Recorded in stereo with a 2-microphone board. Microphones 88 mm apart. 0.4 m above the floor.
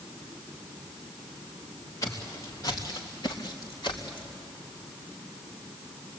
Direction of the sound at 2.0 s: 35° left (ahead or behind).